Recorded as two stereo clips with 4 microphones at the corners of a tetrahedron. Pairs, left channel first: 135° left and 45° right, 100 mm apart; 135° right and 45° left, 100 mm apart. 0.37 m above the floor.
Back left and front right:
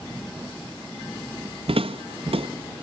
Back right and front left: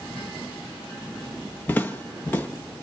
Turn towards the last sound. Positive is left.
turn(degrees=-65)